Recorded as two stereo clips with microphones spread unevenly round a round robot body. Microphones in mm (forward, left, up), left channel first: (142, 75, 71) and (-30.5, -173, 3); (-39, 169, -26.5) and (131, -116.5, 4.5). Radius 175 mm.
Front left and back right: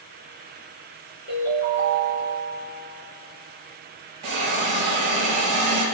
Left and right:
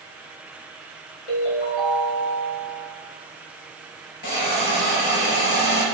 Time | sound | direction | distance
1.3 | a ringtone | 120° left | 5 m
4.2 | a hiss | 160° left | 5.5 m